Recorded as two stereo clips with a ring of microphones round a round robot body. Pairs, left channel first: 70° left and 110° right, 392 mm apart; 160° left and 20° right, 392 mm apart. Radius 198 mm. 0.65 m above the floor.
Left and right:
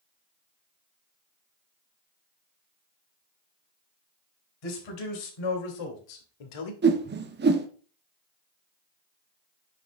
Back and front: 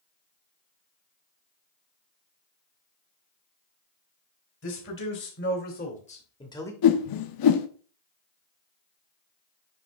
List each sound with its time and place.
4.6 s a man speaking: 100° left, 3.5 m; by 6.7 s 75° left, 2.0 m
6.8 s a whoosh: 175° right, 0.9 m